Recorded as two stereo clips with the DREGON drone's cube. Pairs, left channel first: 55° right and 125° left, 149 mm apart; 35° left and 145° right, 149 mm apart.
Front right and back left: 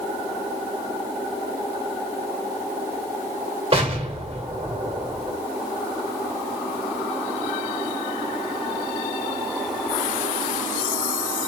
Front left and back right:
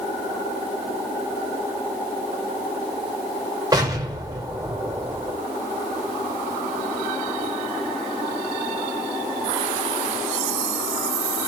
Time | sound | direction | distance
3.7 | an explosion | 155° left | 1.4 m